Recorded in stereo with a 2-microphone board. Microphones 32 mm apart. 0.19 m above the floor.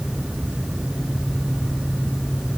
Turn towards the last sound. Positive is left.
No sound to turn to.